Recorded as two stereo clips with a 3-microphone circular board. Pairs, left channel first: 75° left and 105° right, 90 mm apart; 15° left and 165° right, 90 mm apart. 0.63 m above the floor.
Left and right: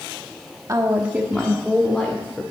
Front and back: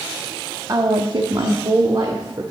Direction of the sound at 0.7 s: 140° right.